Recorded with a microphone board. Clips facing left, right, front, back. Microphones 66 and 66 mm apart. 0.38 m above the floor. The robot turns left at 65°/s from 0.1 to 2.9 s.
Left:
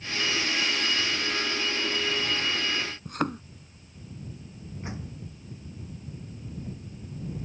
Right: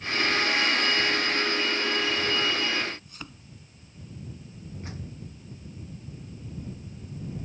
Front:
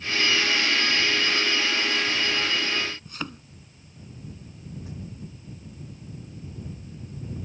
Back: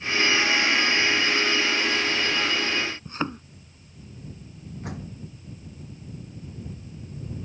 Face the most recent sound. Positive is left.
turn(degrees=160)